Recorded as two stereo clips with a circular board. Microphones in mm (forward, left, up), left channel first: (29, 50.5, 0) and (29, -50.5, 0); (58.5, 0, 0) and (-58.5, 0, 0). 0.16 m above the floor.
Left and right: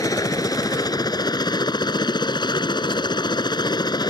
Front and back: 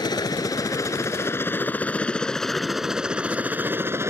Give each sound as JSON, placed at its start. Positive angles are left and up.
{"t": 0.0, "sound": "a helicopter", "azimuth_deg": 45}